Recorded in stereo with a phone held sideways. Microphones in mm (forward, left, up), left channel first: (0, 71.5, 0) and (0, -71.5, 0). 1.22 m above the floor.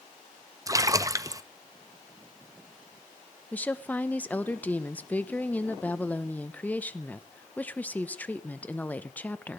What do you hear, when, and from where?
0.7 s a splash: 25° right (ahead or behind), 0.6 m
3.5 s a woman speaking: 10° left (ahead or behind), 1.0 m